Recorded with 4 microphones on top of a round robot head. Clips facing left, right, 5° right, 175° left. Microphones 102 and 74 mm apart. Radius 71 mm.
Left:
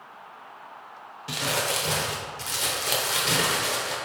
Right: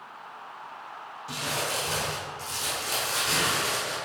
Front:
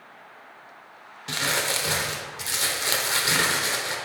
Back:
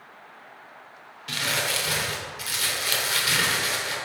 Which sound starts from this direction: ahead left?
Crumpling, at 1.3 s.